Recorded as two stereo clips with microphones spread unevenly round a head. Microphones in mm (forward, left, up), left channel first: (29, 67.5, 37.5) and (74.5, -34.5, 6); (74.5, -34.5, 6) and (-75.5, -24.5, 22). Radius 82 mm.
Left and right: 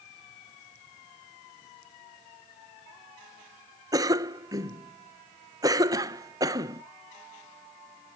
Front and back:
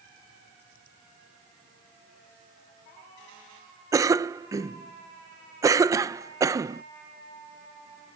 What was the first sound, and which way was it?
A cough, 115° right.